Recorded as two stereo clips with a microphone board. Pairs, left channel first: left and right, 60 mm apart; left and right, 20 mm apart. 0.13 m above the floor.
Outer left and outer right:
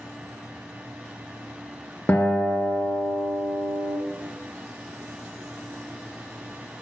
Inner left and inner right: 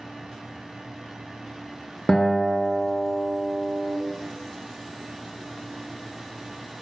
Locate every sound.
2.1 s a guitar: 35° left (ahead or behind), 0.6 m